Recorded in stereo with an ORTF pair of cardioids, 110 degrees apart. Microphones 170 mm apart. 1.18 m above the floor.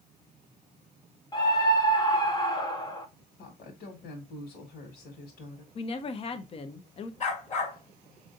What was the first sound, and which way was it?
A scream, 20° left.